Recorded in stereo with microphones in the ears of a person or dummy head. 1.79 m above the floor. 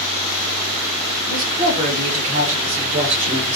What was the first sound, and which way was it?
A woman speaking, 25° right (ahead or behind).